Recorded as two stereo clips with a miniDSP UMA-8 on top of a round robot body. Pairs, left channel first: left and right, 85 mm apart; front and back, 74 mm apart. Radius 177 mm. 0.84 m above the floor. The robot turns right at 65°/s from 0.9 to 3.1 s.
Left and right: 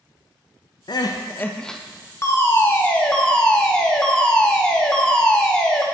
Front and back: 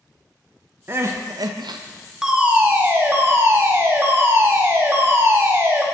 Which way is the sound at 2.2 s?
105° left.